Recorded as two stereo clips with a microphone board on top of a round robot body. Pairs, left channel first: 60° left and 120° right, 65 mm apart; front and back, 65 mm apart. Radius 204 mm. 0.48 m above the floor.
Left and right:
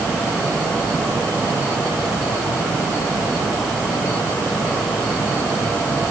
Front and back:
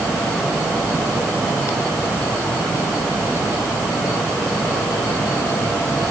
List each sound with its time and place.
Only background noise.